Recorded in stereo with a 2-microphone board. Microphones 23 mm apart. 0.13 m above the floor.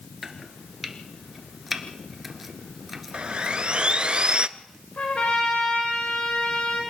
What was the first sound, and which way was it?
Chopping, 10° right (ahead or behind).